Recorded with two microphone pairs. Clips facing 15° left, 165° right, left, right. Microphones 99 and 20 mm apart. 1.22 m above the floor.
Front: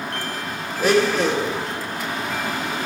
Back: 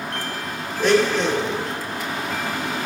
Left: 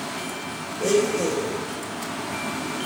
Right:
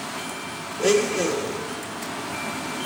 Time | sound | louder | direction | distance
0.8 | a blender | even, right 1 dB | 70° right | 0.9 m